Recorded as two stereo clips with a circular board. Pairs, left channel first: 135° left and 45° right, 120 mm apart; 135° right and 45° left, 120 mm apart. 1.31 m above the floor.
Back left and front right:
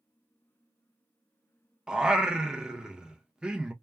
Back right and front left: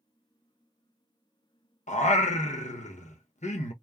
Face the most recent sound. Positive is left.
turn(degrees=-130)